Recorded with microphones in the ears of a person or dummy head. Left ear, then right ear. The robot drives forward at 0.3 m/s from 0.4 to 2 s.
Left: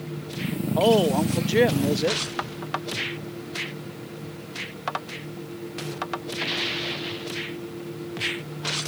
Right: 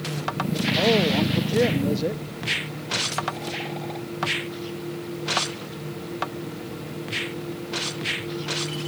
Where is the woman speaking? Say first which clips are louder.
Left 2 dB; 50° left (ahead or behind); by 2.2 s 40° left (ahead or behind).